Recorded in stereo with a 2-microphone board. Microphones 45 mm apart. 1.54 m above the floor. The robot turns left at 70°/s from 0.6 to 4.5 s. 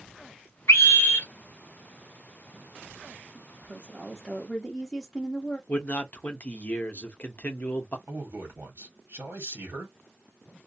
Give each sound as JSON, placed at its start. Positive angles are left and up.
{"t": 0.7, "sound": "a scream", "azimuth_deg": 105, "distance_m": 1.0}
{"t": 3.4, "sound": "a woman speaking", "azimuth_deg": -100, "distance_m": 0.7}
{"t": 5.7, "sound": "a man speaking", "side_deg": 35, "distance_m": 0.7}
{"t": 8.1, "sound": "a man speaking", "side_deg": -55, "distance_m": 1.4}